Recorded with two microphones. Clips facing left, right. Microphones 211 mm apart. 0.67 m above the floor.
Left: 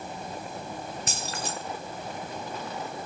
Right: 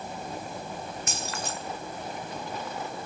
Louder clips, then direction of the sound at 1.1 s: Even; 35° left (ahead or behind).